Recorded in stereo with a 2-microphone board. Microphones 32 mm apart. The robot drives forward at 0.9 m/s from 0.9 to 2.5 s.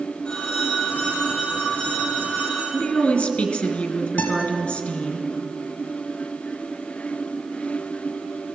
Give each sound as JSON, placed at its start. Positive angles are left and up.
{"t": 0.2, "sound": "a phone ringing", "side_deg": 30, "distance_m": 6.5}
{"t": 2.7, "sound": "a woman speaking", "side_deg": 40, "distance_m": 2.0}
{"t": 4.2, "sound": "a guitar", "side_deg": 50, "distance_m": 2.5}